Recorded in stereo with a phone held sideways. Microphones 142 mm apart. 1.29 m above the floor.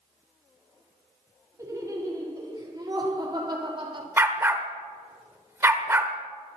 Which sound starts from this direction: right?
Laughter, at 1.6 s.